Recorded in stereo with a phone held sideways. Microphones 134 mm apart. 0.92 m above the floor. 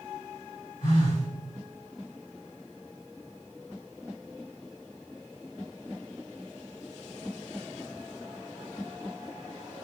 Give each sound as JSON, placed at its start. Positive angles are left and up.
{"t": 0.8, "sound": "a phone buzzing", "side_deg": 70, "distance_m": 3.5}